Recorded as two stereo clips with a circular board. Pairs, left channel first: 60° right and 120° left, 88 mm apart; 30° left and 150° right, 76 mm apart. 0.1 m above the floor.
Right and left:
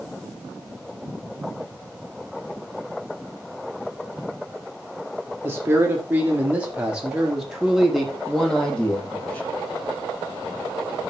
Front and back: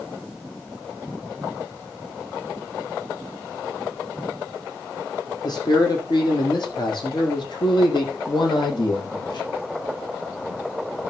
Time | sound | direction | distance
5.4 | a man speaking | 55° left | 4.5 m